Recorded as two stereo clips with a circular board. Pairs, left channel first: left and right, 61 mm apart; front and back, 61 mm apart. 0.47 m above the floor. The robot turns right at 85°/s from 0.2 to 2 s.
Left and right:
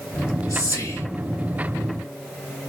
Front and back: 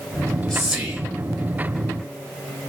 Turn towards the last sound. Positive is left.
turn(degrees=-150)